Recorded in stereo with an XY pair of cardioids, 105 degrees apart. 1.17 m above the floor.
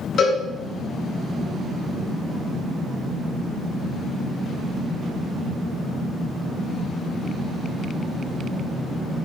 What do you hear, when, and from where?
0.2 s a cowbell: 60° left, 4.5 m